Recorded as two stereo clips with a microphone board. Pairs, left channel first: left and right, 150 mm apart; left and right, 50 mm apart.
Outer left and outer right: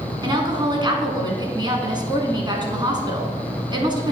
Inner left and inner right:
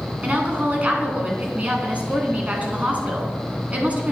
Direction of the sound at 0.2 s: 30° right (ahead or behind).